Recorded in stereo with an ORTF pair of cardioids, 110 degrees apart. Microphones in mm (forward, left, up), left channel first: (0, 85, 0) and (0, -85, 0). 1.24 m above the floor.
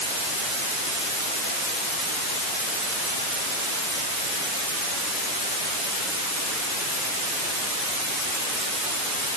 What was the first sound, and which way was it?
Only background noise.